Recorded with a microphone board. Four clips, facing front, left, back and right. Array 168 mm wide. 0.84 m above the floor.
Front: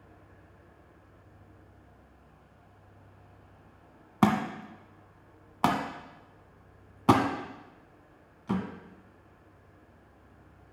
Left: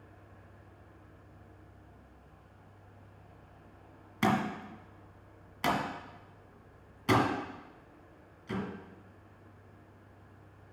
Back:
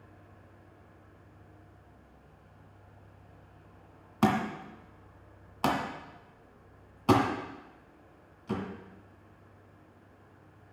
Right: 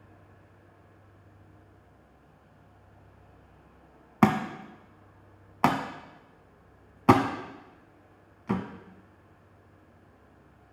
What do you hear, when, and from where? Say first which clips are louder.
4.2 s a thud: right 5 dB, front 2 dB; 65° right, 1.3 m